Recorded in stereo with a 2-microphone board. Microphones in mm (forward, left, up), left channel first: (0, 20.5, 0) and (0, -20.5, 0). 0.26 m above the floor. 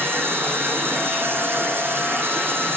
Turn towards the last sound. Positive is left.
turn(degrees=-70)  # may be behind; listen again after turning